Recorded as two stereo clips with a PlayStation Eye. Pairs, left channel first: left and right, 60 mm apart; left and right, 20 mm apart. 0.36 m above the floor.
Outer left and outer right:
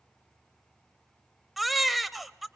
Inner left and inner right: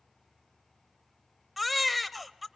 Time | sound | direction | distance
1.6 | a baby crying | centre (ahead or behind) | 0.6 m